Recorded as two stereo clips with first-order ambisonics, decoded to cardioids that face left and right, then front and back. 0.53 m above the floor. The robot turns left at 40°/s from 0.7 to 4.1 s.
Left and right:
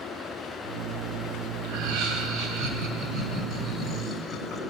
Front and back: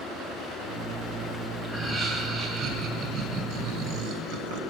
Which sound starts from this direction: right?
Laughter, at 1.6 s.